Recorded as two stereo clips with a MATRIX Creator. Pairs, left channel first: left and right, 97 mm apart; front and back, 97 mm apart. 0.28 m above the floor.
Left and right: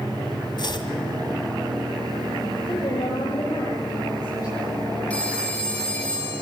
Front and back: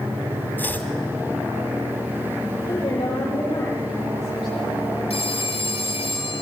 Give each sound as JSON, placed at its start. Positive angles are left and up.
{"t": 0.6, "sound": "chopping", "azimuth_deg": 65, "distance_m": 1.8}
{"t": 2.7, "sound": "a woman speaking", "azimuth_deg": 45, "distance_m": 10.0}
{"t": 5.1, "sound": "a phone ringing", "azimuth_deg": 15, "distance_m": 3.5}